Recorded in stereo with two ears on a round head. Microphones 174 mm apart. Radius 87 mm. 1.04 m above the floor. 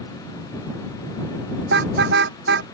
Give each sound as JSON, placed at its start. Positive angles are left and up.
{"t": 1.7, "sound": "a car horn", "side_deg": -55}